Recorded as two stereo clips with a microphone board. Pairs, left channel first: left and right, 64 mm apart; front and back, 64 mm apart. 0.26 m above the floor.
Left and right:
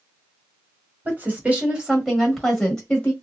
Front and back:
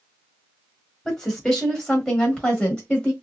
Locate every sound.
1.1 s a woman speaking: 75° right, 1.4 m; by 3.1 s 55° left, 1.3 m